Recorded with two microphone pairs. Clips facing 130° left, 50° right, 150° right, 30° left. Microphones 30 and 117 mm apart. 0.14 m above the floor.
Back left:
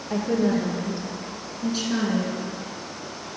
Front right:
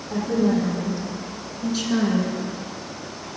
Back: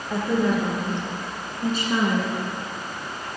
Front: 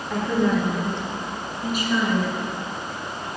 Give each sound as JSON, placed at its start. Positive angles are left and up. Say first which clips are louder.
{"t": 0.1, "sound": "a woman speaking", "louder": "front right 1 dB, front 1 dB", "azimuth_deg": 125, "distance_m": 2.5}